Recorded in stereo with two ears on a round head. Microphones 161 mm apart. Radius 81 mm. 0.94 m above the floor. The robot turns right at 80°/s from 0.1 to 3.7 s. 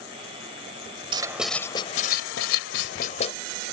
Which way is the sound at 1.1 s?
25° right.